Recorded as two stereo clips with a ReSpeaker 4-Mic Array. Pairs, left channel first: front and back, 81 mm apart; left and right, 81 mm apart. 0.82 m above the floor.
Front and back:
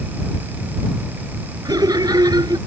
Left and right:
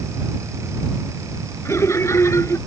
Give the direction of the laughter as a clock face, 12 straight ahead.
7 o'clock.